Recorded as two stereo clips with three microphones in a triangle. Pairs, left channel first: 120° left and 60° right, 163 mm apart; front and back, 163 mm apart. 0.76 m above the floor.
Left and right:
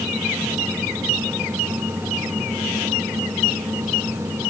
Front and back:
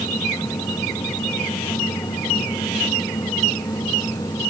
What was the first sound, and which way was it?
Only background noise.